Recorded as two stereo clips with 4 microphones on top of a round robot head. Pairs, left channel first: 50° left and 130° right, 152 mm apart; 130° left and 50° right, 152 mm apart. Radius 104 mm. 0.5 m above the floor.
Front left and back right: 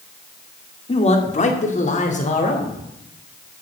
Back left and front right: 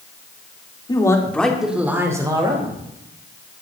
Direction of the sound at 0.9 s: 80° left.